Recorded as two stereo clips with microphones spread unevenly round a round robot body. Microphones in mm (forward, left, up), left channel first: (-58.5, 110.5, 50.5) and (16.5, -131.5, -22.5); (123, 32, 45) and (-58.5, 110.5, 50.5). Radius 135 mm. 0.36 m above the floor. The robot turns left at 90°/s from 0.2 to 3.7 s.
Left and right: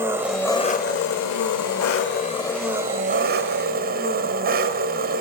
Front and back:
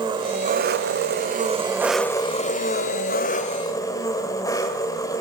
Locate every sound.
0.0 s an engine running: 140° right, 1.1 m; by 5.2 s 95° right, 1.1 m